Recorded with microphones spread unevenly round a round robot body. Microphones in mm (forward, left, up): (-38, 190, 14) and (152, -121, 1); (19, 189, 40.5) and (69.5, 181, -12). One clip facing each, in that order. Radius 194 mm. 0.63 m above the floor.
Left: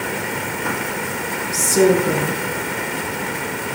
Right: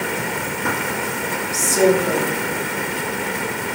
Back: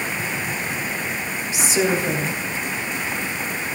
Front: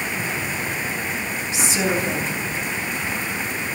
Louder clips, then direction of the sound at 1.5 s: Left 2 dB, back 2 dB; 85° left.